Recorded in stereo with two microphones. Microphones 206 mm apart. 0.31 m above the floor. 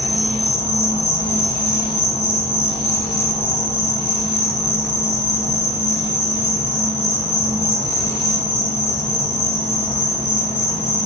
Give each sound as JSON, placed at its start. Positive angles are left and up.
{"t": 0.0, "sound": "an insect", "side_deg": 30, "distance_m": 0.7}